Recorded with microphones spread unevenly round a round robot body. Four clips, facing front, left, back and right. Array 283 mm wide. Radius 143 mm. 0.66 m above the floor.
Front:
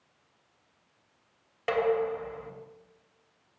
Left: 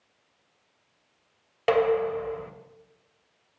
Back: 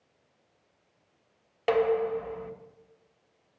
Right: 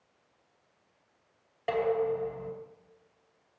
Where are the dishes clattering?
100° left, 2 m.